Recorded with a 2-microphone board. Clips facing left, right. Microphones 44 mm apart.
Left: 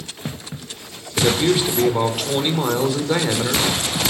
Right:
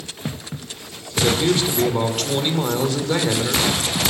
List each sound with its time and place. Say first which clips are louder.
1.2 s a man speaking: left 1 dB; 10° left (ahead or behind), 3 m